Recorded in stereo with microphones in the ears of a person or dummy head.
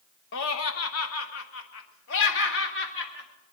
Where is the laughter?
75° left (ahead or behind), 0.8 m; by 3.3 s 55° left (ahead or behind), 2.5 m.